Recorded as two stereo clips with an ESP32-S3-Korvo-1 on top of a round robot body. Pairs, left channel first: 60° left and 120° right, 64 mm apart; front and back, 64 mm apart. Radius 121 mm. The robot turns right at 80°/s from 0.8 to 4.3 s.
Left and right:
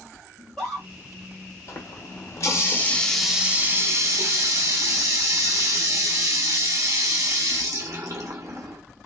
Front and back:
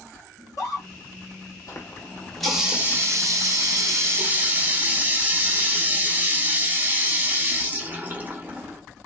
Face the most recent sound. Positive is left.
turn(degrees=-125)